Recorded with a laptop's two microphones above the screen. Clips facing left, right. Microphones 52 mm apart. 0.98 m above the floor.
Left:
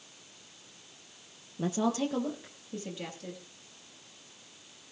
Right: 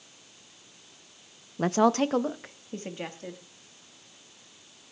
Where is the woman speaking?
60° right (ahead or behind), 0.5 m; by 3.4 s 35° right (ahead or behind), 1.8 m.